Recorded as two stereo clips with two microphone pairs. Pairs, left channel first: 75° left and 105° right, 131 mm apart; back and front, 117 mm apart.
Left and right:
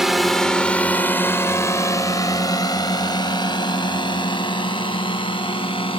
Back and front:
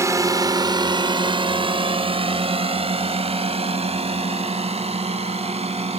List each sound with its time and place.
0.0 s a drone: 25° right; by 6.0 s 25° left